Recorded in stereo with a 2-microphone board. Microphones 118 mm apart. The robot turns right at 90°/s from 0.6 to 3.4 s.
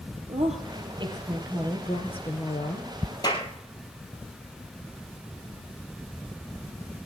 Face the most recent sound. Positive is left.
turn(degrees=20)  # may be behind; listen again after turning